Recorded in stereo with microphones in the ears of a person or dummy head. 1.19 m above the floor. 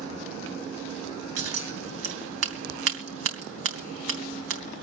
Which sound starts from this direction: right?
Scissors, at 1.4 s.